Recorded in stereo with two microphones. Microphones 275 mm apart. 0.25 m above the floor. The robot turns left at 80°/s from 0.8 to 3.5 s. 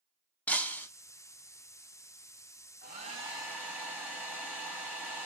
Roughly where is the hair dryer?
Behind right.